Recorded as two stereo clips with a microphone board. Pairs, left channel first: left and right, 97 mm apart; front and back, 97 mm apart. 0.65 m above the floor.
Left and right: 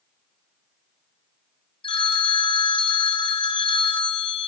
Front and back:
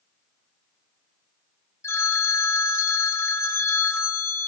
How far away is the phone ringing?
About 1.0 m.